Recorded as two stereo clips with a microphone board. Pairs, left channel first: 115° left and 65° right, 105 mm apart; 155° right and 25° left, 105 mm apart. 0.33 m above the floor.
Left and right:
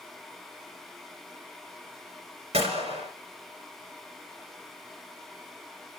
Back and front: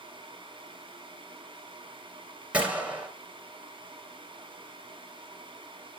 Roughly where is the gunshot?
Ahead right.